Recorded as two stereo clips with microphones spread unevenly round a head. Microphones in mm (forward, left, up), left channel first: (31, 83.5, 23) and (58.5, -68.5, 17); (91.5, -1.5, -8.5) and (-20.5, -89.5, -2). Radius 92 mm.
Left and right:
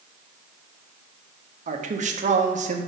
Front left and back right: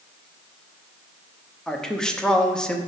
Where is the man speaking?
45° right, 0.9 m.